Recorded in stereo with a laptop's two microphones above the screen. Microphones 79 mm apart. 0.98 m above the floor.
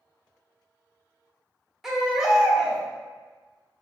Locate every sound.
1.8 s a baby crying: 5° right (ahead or behind), 0.5 m